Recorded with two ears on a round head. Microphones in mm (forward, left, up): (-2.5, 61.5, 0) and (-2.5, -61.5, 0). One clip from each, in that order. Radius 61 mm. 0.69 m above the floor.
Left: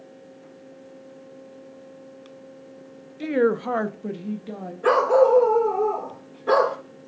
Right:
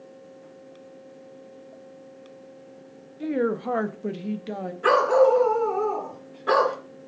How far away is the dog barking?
About 2 m.